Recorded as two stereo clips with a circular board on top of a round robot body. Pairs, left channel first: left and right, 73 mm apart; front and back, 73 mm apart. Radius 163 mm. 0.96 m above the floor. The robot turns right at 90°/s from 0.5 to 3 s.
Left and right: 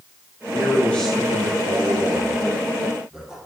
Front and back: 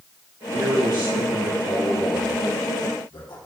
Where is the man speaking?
125° left, 3 m; by 3.4 s 10° right, 3 m.